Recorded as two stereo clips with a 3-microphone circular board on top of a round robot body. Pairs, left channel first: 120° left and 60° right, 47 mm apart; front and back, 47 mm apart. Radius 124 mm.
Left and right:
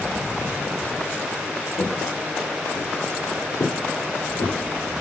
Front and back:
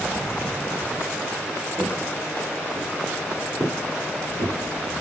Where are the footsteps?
105° left, 1.7 m; by 4.6 s 135° left, 3 m.